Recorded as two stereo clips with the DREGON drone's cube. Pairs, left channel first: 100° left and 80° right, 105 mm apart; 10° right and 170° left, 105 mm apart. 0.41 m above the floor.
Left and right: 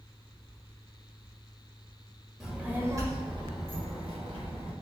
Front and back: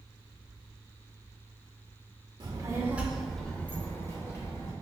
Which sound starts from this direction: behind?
A child speaking, at 2.4 s.